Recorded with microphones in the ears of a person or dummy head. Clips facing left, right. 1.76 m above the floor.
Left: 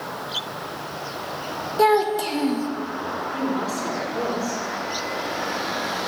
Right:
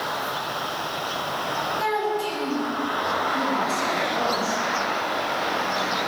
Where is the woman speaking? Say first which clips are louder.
Left 4 dB; 45° left (ahead or behind), 4.5 m.